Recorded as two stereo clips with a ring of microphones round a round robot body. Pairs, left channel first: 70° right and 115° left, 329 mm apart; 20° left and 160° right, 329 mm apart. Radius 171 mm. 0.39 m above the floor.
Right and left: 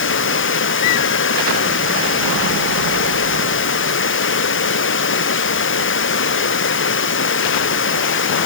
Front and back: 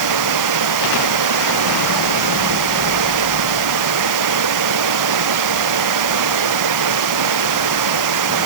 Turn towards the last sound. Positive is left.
turn(degrees=-125)